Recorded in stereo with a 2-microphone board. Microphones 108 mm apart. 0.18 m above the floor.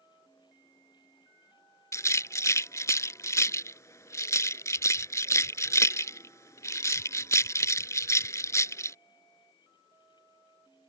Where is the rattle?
30° left (ahead or behind).